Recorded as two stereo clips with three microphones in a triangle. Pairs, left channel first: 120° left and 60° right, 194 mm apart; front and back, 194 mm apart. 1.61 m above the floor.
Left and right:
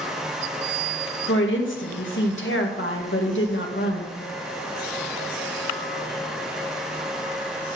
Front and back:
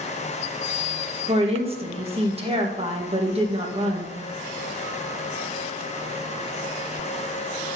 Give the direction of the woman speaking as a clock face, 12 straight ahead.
8 o'clock.